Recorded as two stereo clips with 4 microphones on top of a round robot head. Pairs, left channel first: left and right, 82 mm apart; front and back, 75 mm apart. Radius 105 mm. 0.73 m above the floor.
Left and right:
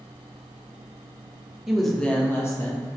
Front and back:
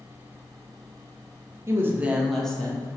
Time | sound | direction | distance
1.7 | a woman speaking | 170° right | 0.9 m